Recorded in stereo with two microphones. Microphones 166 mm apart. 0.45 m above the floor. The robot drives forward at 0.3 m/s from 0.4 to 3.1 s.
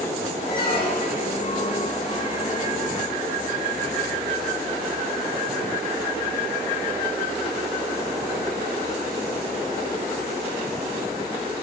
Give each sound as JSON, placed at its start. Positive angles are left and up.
{"t": 0.5, "sound": "a squeak", "side_deg": 70, "distance_m": 4.0}